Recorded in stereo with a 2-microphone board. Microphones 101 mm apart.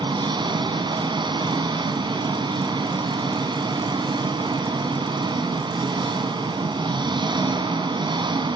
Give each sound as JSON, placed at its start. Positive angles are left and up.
{"t": 0.0, "sound": "an engine running", "side_deg": -50, "distance_m": 3.5}